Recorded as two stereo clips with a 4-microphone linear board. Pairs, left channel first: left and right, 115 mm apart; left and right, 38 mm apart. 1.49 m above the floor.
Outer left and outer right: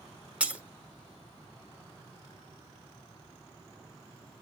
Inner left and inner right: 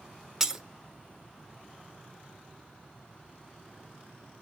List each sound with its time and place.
0.4 s breaking glass: 10° right (ahead or behind), 0.7 m